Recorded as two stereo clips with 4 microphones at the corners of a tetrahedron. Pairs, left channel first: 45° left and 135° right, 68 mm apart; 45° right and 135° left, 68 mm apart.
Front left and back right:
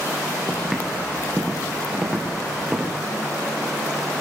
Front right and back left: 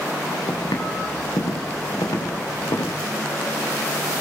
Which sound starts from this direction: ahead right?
Footsteps, at 0.5 s.